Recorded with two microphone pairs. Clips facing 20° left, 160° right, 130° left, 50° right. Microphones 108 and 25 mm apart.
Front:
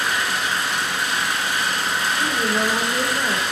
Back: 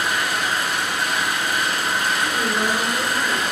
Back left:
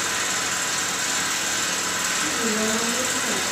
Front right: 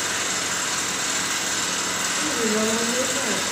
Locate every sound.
0.0 s an engine running: 135° right, 4 m
2.2 s a woman speaking: 60° right, 5 m